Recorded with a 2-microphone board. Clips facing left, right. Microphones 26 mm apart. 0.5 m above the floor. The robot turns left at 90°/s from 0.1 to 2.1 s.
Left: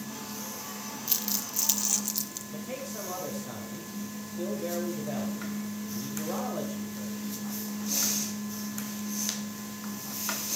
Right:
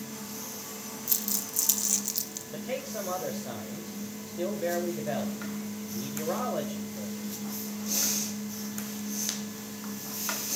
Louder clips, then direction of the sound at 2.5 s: Right 4 dB; 30° right (ahead or behind).